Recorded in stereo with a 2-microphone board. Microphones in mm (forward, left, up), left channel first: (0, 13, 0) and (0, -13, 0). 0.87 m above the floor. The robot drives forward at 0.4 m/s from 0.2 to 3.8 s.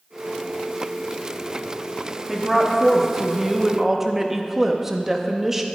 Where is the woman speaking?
10° right (ahead or behind), 1.6 m; by 5.7 s 15° right (ahead or behind), 1.1 m.